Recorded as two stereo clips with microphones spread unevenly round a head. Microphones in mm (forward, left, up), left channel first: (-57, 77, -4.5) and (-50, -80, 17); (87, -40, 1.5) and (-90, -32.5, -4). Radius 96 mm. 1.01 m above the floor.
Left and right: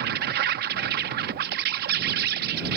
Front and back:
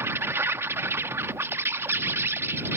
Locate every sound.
0.0 s an insect: 105° right